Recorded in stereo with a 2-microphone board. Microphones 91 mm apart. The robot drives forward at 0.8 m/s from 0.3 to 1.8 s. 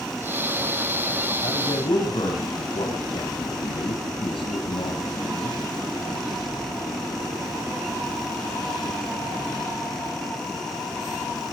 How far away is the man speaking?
About 4 m.